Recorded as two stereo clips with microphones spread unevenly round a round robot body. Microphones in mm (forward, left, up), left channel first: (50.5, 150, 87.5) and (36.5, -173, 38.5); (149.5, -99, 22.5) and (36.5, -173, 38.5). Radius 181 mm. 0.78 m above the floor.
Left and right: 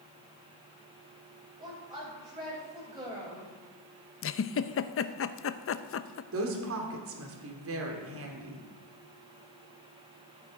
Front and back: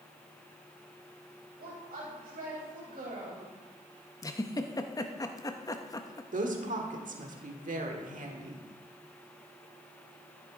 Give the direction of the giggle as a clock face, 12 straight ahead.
10 o'clock.